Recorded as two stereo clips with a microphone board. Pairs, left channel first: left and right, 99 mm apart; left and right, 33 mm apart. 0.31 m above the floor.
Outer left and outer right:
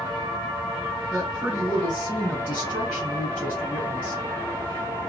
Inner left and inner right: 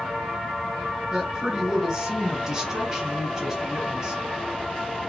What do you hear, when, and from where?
1.1 s a woman speaking: 20° right (ahead or behind), 1.7 m